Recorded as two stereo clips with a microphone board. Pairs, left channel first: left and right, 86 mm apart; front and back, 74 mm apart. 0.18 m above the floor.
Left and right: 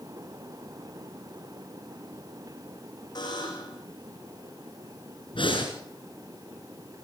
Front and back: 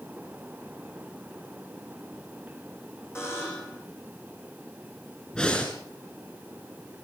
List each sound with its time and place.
3.1 s a buzzer: 55° left, 8 m
5.3 s breathing: 75° left, 7 m